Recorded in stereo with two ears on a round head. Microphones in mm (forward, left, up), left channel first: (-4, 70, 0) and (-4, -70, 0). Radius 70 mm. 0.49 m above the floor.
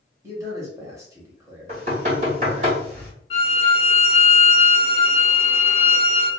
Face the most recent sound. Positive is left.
turn(degrees=40)  # may be behind; listen again after turning